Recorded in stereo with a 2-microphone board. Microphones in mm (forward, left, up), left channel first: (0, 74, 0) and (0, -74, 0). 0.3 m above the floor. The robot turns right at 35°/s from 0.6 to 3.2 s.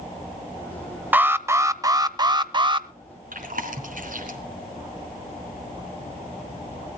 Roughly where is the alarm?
Behind.